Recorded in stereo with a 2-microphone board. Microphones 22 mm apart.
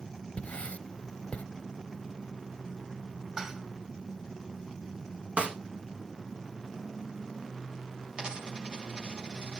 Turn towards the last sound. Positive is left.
turn(degrees=-50)  # may be behind; listen again after turning